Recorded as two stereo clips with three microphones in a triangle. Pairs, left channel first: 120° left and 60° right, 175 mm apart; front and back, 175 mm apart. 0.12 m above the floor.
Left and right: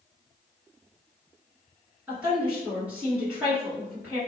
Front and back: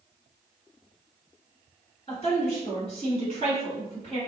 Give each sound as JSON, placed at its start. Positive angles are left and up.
{"t": 2.1, "sound": "a woman speaking", "azimuth_deg": 15, "distance_m": 1.8}